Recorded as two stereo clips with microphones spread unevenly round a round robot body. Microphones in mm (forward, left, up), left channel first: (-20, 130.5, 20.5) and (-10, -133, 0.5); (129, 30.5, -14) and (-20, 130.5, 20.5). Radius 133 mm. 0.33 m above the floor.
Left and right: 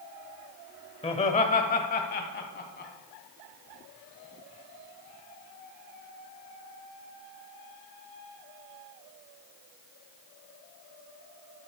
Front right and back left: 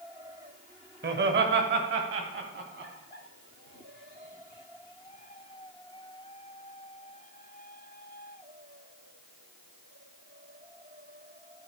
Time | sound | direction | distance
1.0 | laughter | 155° left | 1.4 m